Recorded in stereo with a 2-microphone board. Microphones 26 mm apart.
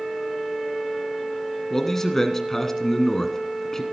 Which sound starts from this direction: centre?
A man speaking, at 1.7 s.